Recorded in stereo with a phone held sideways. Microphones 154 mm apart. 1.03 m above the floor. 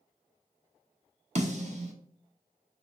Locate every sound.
1.4 s a snare drum: 50° right (ahead or behind), 0.7 m